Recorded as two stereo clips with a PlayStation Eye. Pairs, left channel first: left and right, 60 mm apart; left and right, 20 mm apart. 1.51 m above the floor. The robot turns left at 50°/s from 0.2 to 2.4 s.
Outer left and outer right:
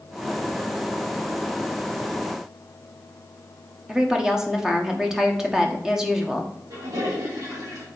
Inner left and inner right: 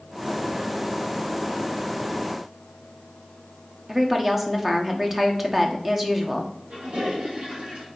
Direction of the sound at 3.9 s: 10° right (ahead or behind).